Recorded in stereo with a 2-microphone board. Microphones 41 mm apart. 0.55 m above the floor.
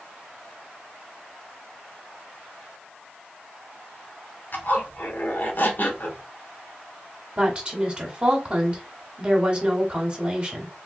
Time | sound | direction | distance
4.5 | a zipper | 50° left (ahead or behind) | 0.9 m
7.4 | a woman speaking | 25° right (ahead or behind) | 1.2 m